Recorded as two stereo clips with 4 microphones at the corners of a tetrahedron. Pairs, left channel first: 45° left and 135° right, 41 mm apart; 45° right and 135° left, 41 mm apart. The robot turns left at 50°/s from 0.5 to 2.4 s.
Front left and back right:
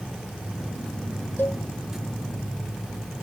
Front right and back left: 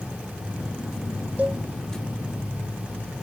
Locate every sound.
1.4 s a cowbell: 80° left; by 1.6 s 65° left